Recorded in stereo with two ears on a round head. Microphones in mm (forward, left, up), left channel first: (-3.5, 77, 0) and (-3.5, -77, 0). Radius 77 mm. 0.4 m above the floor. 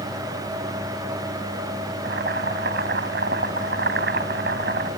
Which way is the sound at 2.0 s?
65° right (ahead or behind).